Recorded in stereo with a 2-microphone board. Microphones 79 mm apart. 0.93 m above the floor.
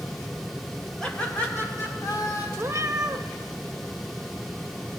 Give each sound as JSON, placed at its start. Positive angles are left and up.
{"t": 1.0, "sound": "laughter", "side_deg": 10, "distance_m": 2.0}
{"t": 2.6, "sound": "a cat meowing", "side_deg": -40, "distance_m": 0.6}